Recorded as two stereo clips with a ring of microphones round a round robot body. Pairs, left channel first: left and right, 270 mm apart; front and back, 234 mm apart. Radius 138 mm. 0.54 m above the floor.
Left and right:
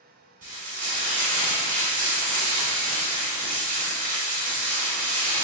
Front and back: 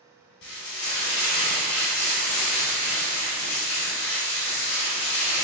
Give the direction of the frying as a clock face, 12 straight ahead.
1 o'clock.